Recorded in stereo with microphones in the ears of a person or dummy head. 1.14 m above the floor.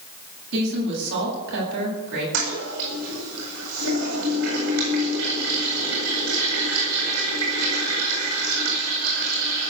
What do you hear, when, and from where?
0.5 s a woman speaking: 70° right (ahead or behind), 9.5 m
2.3 s a toilet flushing: 75° right (ahead or behind), 8 m